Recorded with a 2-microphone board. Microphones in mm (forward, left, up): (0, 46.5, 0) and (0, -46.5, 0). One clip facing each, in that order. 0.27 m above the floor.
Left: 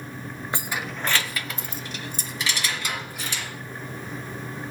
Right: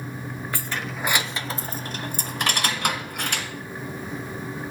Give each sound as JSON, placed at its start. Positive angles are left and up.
{"t": 0.5, "sound": "keys jangling", "side_deg": 20, "distance_m": 0.6}